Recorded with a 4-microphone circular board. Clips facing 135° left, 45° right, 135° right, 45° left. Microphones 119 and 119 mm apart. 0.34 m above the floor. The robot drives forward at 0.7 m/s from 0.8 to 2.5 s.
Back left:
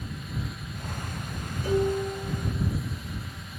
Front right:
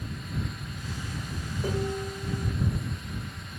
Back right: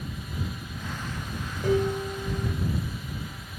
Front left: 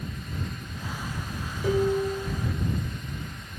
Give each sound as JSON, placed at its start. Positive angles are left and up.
{"t": 1.6, "sound": "dishes clattering", "azimuth_deg": -85, "distance_m": 3.5}